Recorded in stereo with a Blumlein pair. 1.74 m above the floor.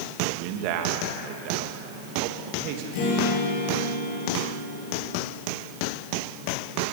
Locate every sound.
0.3 s a man speaking: 45° right, 2.5 m
2.9 s a guitar: 45° left, 7.5 m